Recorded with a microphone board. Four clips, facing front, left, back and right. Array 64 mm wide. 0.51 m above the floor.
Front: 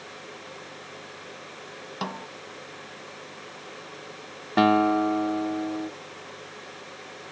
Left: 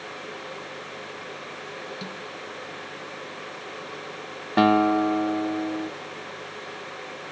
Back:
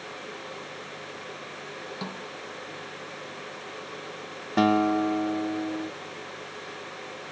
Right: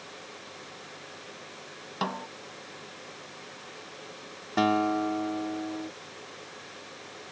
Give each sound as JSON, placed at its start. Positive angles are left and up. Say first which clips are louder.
{"t": 2.0, "sound": "a snare drum", "louder": "right 4 dB, front 6 dB", "azimuth_deg": -60}
{"t": 4.6, "sound": "a guitar", "louder": "left 6 dB, front 2 dB", "azimuth_deg": 55}